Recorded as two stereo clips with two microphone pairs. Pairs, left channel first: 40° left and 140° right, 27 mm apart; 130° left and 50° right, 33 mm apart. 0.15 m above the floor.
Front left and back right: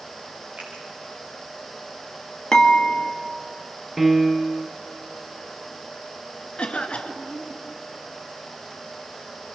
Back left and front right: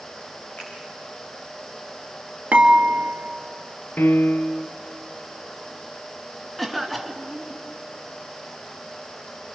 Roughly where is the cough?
Ahead left.